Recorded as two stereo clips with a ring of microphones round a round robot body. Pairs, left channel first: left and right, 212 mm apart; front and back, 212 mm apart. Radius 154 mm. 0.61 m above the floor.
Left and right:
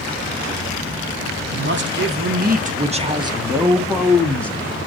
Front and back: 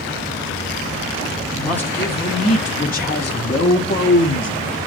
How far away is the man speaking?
About 1.7 m.